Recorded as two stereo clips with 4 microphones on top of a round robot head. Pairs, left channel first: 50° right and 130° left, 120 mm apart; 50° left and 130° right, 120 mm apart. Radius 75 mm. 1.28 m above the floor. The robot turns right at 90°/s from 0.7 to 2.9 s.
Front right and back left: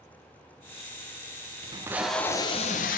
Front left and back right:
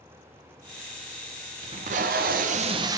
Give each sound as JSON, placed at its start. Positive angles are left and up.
{"t": 1.6, "sound": "tape being pulled", "azimuth_deg": 180, "distance_m": 0.6}